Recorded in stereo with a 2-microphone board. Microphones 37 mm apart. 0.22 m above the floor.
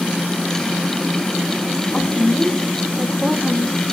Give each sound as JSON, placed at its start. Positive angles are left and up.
{"t": 1.9, "sound": "a woman speaking", "side_deg": 15, "distance_m": 1.3}